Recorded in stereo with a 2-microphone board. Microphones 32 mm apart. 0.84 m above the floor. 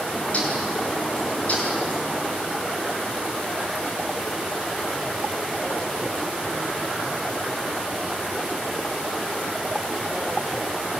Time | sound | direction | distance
0.1 | a bird | 45° left (ahead or behind) | 6.5 m